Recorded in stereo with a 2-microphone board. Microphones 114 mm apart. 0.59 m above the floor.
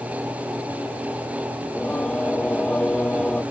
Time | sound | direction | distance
1.6 | singing | 10° left (ahead or behind) | ?